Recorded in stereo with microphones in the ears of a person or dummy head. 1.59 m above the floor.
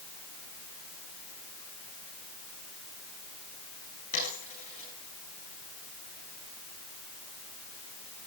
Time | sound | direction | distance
4.1 | a dropped coin | 35° left (ahead or behind) | 9 m